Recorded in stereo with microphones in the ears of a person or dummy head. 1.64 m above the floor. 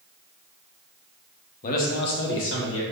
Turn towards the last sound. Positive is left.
turn(degrees=65)  # may be behind; listen again after turning